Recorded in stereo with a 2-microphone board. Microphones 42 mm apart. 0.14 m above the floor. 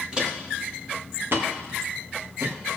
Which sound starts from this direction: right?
Footsteps, at 0.1 s.